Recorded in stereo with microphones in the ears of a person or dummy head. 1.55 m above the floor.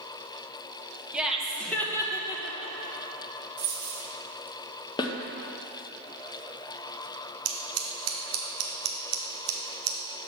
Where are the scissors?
85° right, 1.1 m.